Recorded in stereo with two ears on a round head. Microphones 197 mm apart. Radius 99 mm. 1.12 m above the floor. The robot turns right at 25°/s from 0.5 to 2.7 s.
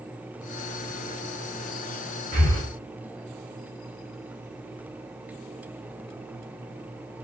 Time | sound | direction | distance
2.3 | breathing | 40° right (ahead or behind) | 2.5 m